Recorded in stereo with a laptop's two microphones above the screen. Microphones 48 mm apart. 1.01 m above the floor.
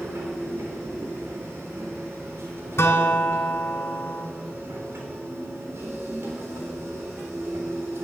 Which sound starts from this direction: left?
A guitar, at 2.8 s.